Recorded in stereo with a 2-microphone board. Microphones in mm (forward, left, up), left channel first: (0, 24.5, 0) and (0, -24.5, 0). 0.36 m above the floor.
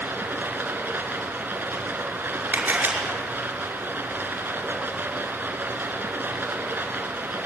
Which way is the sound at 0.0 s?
40° right (ahead or behind).